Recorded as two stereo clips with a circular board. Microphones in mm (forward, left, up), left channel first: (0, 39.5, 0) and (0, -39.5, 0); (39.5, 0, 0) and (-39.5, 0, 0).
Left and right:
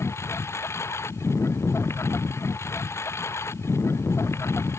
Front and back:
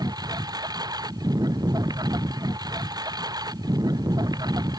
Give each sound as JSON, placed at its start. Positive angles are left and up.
{"t": 0.0, "sound": "a lawn mower", "azimuth_deg": 145}